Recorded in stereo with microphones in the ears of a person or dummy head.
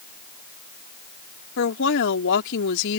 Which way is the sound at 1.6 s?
65° left (ahead or behind).